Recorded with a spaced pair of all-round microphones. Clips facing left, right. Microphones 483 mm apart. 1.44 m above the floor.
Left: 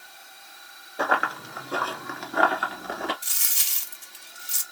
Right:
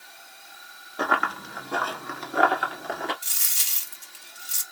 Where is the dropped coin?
5° left (ahead or behind), 0.9 m.